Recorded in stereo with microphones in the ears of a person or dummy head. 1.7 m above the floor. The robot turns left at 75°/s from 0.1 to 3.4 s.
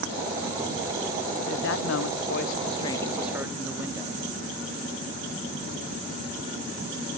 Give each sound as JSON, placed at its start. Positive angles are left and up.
{"t": 1.5, "sound": "a woman speaking", "azimuth_deg": 130, "distance_m": 1.1}